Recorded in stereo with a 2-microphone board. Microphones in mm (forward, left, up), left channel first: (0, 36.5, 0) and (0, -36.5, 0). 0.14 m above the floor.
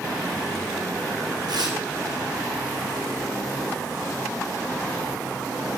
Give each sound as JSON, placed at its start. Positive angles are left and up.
{"t": 1.5, "sound": "tearing paper", "side_deg": -65, "distance_m": 2.5}